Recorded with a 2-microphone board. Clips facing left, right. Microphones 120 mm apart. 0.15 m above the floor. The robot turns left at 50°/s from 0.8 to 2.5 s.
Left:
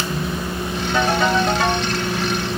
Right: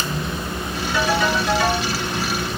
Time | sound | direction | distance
0.9 | a ringtone | 105° left | 1.6 m